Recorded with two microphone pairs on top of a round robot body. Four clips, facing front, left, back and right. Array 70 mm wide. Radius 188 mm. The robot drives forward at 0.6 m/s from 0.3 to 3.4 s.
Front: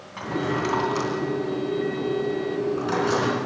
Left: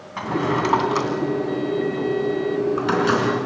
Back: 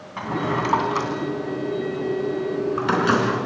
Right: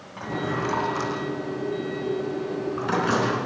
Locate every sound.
0.2 s a drawer: 120° left, 2.5 m; by 3.5 s 145° left, 4 m